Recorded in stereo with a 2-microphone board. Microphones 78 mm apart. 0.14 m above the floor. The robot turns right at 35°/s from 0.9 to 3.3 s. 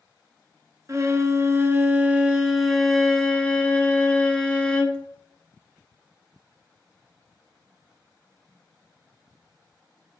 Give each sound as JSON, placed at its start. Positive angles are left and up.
{"t": 0.9, "sound": "a violin", "azimuth_deg": -65, "distance_m": 0.7}